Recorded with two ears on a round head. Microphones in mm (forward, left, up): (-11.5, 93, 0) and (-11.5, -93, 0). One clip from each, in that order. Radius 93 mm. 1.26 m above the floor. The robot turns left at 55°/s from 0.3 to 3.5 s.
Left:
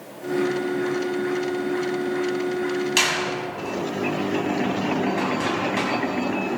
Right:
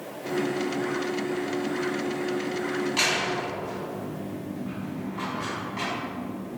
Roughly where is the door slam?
Left.